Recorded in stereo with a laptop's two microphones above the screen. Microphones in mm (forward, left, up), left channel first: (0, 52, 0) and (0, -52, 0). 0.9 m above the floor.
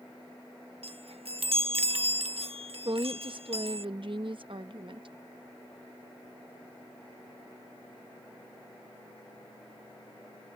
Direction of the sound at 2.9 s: 55° right (ahead or behind).